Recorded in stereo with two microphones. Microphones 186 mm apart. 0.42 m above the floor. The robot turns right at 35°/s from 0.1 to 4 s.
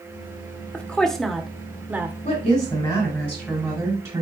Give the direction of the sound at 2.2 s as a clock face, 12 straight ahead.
8 o'clock.